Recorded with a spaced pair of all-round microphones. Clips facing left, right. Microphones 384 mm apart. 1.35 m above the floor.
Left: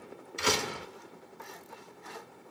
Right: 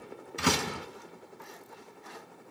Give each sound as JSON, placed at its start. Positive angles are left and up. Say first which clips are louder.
{"t": 0.4, "sound": "a door slam", "louder": "right 2 dB", "side_deg": -65, "distance_m": 1.2}